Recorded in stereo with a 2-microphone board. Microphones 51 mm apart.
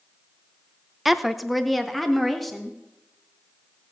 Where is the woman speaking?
5° right (ahead or behind), 0.7 m; by 2.8 s 5° left (ahead or behind), 2 m.